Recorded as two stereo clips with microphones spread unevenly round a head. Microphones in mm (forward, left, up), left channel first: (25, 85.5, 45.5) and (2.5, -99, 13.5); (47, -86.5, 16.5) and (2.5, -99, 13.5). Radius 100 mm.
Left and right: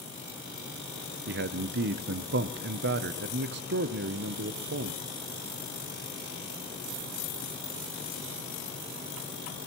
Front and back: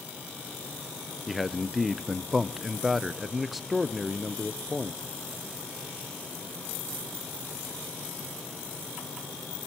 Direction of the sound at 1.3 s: 80° right.